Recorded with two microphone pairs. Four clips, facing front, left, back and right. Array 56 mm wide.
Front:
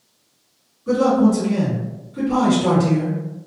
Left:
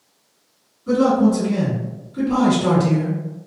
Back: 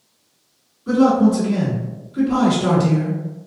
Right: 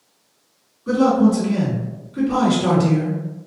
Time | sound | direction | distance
0.9 | a man speaking | 100° right | 1.7 m